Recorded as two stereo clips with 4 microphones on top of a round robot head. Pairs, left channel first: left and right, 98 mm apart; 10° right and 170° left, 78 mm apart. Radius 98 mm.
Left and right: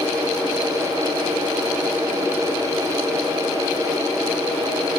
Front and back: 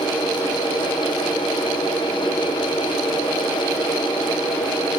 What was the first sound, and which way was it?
Only background noise.